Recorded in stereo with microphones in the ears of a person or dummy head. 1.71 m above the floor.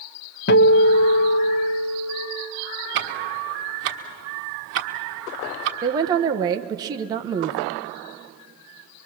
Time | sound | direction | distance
0.5 | a guitar | 50° left (ahead or behind) | 0.7 m
3.0 | ticking | 60° right (ahead or behind) | 1.5 m
5.8 | a woman speaking | 20° right (ahead or behind) | 1.1 m